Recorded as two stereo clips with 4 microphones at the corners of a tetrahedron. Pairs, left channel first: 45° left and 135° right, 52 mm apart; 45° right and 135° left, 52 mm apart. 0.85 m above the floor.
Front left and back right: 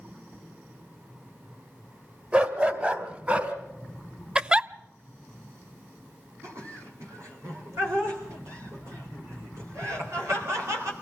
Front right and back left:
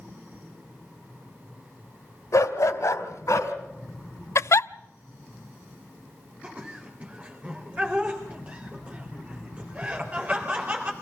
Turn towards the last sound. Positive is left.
turn(degrees=-160)